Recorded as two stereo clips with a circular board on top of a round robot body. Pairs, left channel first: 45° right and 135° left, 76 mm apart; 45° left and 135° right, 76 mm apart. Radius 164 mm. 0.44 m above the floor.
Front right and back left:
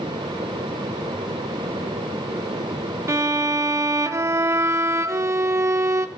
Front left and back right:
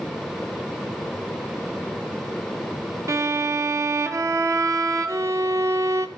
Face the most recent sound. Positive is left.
turn(degrees=180)